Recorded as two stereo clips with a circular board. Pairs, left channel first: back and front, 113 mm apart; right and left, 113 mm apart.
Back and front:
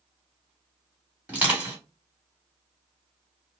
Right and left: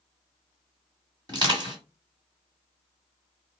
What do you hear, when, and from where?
1.3 s crushing: 70° left, 1.9 m